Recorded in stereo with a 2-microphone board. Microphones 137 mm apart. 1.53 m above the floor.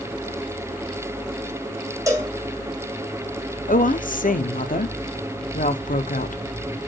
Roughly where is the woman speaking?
Left.